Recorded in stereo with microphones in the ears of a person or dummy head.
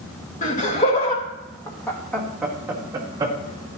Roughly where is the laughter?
Left.